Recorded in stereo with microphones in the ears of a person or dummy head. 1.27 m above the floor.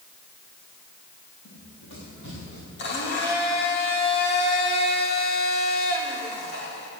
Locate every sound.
1.4 s running footsteps: 70° left (ahead or behind), 6.5 m; by 2.6 s 65° left (ahead or behind), 7.5 m
2.8 s a blender: 60° left (ahead or behind), 2 m